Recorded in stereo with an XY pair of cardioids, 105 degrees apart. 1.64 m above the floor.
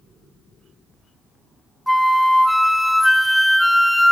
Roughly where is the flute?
Ahead.